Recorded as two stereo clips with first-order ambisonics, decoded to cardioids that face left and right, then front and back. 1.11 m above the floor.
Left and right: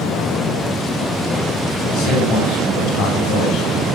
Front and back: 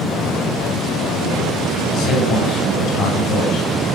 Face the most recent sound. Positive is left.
turn(degrees=45)